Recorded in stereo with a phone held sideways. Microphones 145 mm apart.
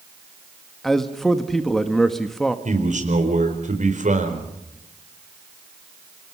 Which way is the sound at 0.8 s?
5° left (ahead or behind).